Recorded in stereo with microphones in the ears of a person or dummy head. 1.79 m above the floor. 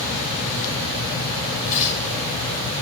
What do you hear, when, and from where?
1.7 s tearing paper: 45° left (ahead or behind), 5 m